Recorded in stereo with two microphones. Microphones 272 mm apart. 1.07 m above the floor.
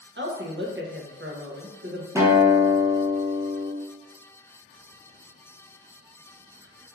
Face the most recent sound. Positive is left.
turn(degrees=-10)  # may be behind; listen again after turning